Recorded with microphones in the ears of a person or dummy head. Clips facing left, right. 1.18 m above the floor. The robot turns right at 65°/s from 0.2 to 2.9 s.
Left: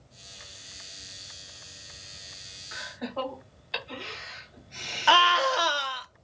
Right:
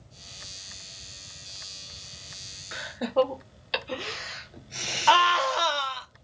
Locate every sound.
2.7 s laughter: 45° right (ahead or behind), 0.8 m; by 5.5 s 50° right (ahead or behind), 0.8 m
5.1 s a scream: 5° left (ahead or behind), 0.5 m